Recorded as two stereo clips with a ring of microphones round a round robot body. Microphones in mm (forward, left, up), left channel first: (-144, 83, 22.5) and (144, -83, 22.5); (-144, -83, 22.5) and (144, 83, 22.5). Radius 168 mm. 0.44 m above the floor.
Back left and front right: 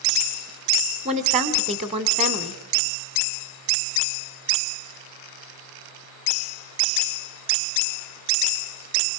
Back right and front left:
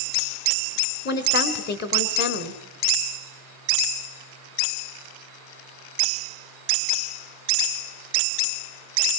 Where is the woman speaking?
95° right, 2 m.